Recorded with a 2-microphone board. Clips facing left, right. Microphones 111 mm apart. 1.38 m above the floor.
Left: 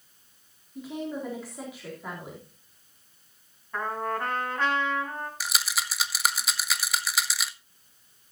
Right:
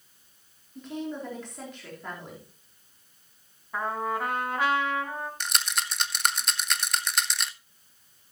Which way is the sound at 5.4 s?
5° left (ahead or behind).